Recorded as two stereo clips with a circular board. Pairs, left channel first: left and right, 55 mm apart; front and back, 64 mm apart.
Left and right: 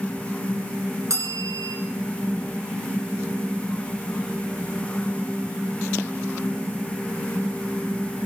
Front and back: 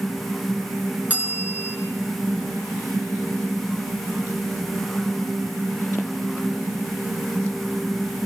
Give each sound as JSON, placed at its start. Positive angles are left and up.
{"t": 1.1, "sound": "a bell", "azimuth_deg": -115, "distance_m": 3.0}